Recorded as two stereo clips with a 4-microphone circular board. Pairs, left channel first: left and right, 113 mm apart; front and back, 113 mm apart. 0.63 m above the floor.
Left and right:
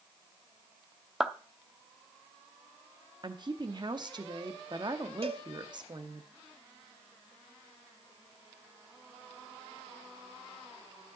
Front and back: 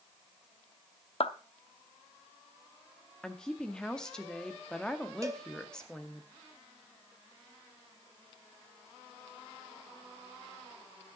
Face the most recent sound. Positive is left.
turn(degrees=-120)